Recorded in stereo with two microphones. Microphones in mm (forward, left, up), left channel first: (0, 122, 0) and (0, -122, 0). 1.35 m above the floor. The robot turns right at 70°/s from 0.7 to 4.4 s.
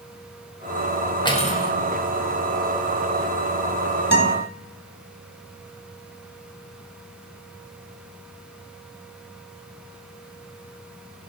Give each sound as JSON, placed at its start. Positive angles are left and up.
{"t": 1.2, "sound": "cutlery clinking", "azimuth_deg": 20, "distance_m": 1.0}
{"t": 4.1, "sound": "a guitar", "side_deg": 40, "distance_m": 1.0}